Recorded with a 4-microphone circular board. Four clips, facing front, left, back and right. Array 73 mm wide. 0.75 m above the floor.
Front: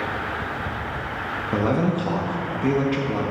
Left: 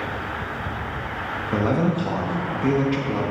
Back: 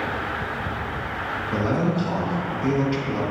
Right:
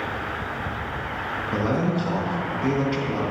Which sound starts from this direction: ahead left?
A man speaking, at 1.5 s.